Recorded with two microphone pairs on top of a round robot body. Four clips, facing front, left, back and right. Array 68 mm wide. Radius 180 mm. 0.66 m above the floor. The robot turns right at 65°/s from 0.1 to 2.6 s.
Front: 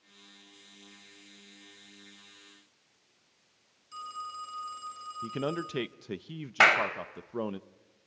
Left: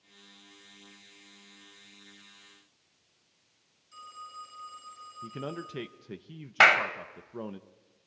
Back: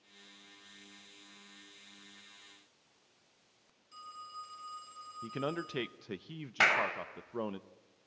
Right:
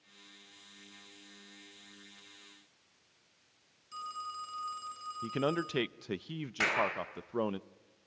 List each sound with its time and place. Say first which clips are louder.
3.9 s a phone ringing: right 4 dB, front 8 dB; 35° right, 5 m
5.2 s a man speaking: right 6 dB, front 4 dB; 55° right, 0.8 m
6.6 s a clap: left 10 dB, front 6 dB; 60° left, 3 m